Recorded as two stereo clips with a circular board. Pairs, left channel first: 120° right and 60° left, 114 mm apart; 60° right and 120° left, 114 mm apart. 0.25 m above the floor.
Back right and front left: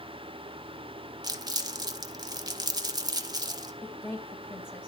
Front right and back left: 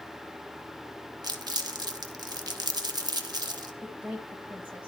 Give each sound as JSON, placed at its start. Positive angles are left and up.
{"t": 1.2, "sound": "crumpling", "azimuth_deg": 90, "distance_m": 0.6}
{"t": 3.8, "sound": "a woman speaking", "azimuth_deg": -170, "distance_m": 1.0}